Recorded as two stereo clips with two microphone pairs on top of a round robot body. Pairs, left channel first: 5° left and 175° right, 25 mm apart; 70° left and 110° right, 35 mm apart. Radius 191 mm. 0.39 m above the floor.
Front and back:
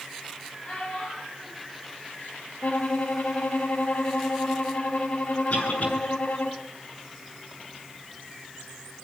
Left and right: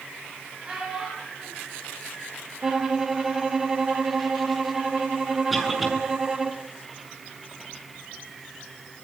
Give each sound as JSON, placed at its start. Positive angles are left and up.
{"t": 0.6, "sound": "a child speaking", "azimuth_deg": -45, "distance_m": 10.0}
{"t": 2.6, "sound": "a violin", "azimuth_deg": -35, "distance_m": 1.8}
{"t": 5.5, "sound": "a cough", "azimuth_deg": -25, "distance_m": 8.0}